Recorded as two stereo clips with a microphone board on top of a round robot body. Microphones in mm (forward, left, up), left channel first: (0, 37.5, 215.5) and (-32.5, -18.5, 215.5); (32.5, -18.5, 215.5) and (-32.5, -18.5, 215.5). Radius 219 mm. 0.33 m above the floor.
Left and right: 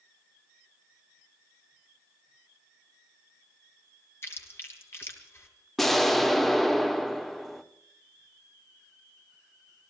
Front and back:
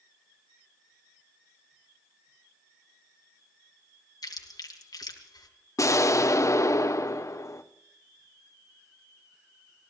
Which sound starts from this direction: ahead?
Chewing, at 4.2 s.